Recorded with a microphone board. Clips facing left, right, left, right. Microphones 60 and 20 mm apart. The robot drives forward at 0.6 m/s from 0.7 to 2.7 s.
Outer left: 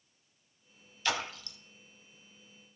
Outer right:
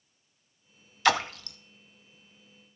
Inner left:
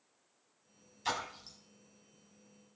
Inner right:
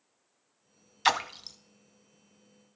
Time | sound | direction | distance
1.1 | a splash | 75° right (ahead or behind) | 0.5 m